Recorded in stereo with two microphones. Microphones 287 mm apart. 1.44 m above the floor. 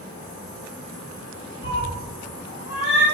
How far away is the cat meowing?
About 1.7 m.